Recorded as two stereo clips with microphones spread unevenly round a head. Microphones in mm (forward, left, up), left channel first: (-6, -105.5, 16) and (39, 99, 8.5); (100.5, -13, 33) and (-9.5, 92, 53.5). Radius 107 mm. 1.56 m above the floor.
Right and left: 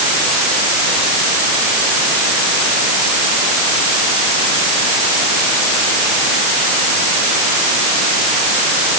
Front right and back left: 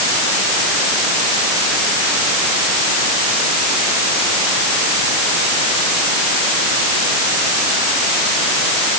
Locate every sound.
Only background noise.